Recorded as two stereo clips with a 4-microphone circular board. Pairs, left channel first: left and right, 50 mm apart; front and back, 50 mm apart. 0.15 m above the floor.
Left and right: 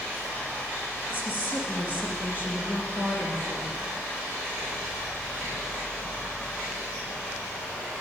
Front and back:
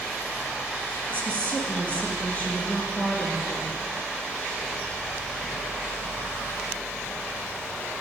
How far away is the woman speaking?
About 1.9 m.